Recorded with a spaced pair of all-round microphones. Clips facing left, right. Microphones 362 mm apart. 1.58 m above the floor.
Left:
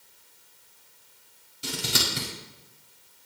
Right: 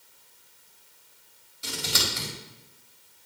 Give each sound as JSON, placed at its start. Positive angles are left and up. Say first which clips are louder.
{"t": 1.6, "sound": "scissors", "louder": "left 2 dB", "side_deg": 45, "distance_m": 5.0}